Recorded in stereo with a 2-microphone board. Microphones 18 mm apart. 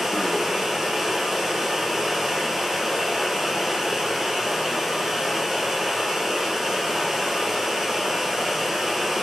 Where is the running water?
25° right (ahead or behind), 1.8 m.